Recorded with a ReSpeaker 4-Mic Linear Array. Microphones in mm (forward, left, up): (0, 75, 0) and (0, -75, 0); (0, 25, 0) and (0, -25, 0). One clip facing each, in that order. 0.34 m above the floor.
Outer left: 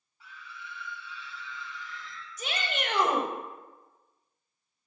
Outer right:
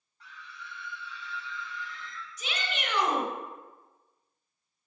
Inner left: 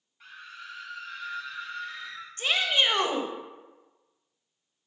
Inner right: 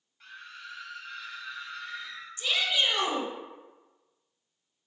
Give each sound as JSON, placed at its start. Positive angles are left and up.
{"t": 0.2, "sound": "a scream", "side_deg": 5, "distance_m": 2.0}
{"t": 2.4, "sound": "a shout", "side_deg": 50, "distance_m": 1.2}